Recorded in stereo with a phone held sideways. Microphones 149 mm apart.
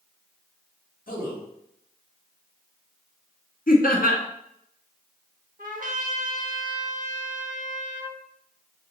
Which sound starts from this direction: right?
A trumpet, at 5.6 s.